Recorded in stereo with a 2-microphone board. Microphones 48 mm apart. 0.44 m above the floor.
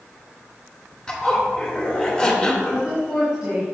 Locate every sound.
1.1 s a zipper: 15° left (ahead or behind), 1.8 m
2.7 s a woman speaking: 20° right (ahead or behind), 2.5 m